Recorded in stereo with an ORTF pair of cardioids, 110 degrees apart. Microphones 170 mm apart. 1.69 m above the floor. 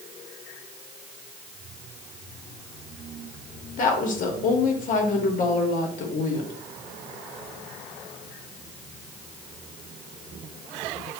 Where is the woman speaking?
55° left, 1.1 m.